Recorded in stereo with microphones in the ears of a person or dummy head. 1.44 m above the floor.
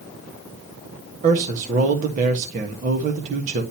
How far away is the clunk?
I don't hear a clunk.